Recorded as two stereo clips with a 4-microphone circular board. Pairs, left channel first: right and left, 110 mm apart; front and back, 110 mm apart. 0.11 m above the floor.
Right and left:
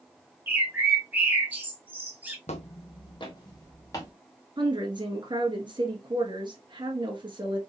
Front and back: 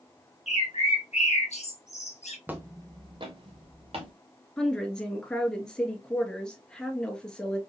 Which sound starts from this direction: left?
A woman speaking, at 4.6 s.